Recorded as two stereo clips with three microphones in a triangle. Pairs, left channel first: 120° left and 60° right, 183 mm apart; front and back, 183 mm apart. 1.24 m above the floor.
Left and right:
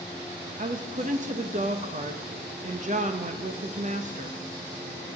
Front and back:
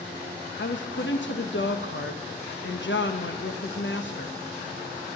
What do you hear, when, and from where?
0.6 s a woman speaking: 10° right, 1.0 m